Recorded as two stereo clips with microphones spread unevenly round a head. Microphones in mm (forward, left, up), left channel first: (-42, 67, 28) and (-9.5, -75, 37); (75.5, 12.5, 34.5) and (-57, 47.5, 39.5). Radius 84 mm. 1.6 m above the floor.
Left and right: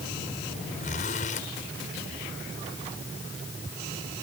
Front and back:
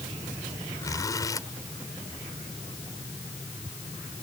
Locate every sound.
0.8 s a zipper: 50° left